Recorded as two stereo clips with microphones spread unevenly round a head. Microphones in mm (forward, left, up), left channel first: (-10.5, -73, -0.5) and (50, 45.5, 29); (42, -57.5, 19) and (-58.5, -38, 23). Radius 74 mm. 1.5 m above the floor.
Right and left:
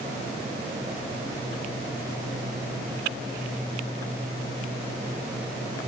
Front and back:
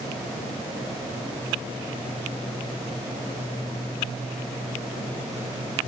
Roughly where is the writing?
I don't hear writing.